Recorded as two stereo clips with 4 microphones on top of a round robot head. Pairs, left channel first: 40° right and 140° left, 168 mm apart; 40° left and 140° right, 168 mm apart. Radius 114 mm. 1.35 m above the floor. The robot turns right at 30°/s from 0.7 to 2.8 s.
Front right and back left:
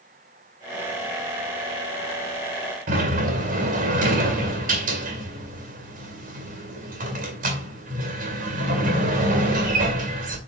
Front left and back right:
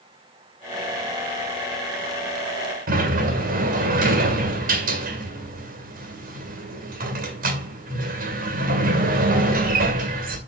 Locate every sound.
2.9 s a sliding door: straight behind, 2 m